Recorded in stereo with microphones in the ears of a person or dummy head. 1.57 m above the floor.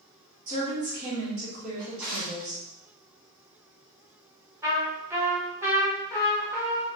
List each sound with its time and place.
0.5 s a woman speaking: 45° right (ahead or behind), 1.5 m
1.8 s a drawer: 15° right (ahead or behind), 1.4 m
4.6 s a trumpet: 15° right (ahead or behind), 1.4 m